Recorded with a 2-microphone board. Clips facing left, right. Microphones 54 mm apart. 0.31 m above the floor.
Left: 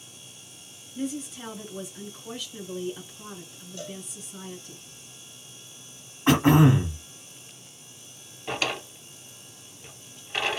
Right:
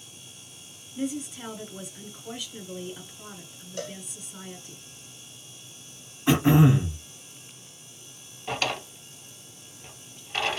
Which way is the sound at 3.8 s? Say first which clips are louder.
Right 3 dB; 70° right (ahead or behind).